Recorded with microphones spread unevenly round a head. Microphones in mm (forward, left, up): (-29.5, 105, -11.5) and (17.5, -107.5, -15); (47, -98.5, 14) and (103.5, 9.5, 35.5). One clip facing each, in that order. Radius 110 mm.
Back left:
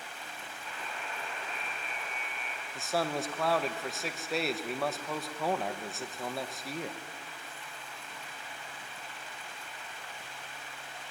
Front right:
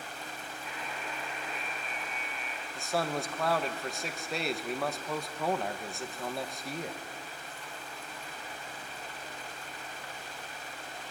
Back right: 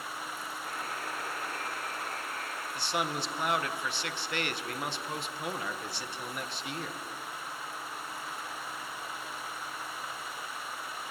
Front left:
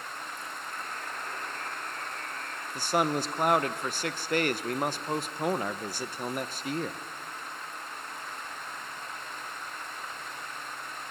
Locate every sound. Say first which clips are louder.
0.7 s a buzzer: front right 1 dB, back right 2 dB; 160° right, 5 m
2.8 s a man speaking: even, front left 6 dB; 15° left, 1.1 m